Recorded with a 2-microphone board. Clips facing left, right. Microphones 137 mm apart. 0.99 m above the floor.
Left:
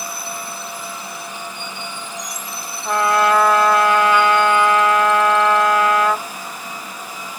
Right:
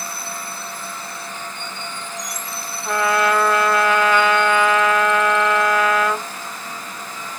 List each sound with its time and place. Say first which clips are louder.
2.9 s a trumpet: left 2 dB; 20° left (ahead or behind), 1.9 m